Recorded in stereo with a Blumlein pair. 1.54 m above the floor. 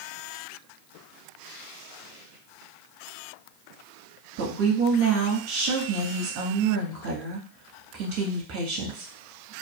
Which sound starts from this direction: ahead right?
A woman speaking, at 4.4 s.